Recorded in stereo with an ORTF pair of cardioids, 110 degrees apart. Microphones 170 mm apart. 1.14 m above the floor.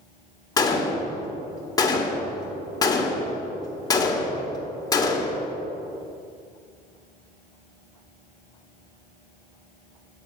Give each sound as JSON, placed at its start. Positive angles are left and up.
{"t": 0.6, "sound": "a gunshot", "azimuth_deg": 25, "distance_m": 1.5}